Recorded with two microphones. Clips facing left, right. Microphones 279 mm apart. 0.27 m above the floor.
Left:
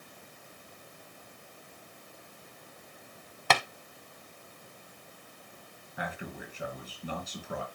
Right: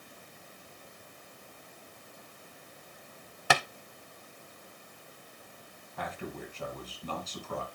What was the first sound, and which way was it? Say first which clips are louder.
Tapping: even; 10° right (ahead or behind).